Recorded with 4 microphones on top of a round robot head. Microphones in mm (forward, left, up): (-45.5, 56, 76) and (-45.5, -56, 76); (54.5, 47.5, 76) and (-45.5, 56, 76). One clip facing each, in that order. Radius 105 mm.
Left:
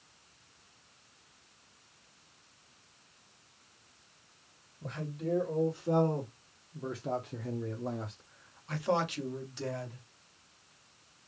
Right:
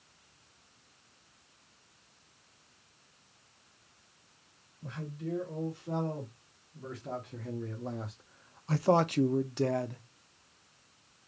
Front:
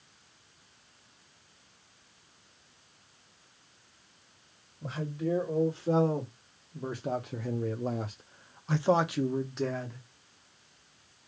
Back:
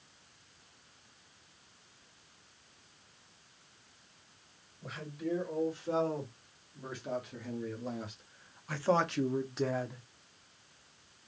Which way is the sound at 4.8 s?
45° left.